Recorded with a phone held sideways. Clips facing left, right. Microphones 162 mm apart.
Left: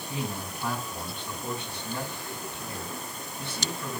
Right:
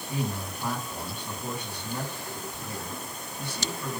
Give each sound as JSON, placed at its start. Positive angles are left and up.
{"t": 0.1, "sound": "a man speaking", "side_deg": -15, "distance_m": 5.0}